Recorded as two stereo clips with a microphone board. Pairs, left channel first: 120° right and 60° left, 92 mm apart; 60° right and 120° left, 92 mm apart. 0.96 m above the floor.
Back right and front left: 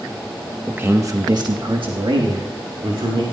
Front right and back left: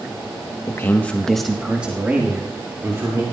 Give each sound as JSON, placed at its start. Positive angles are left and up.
{"t": 0.7, "sound": "a man speaking", "azimuth_deg": -10, "distance_m": 1.0}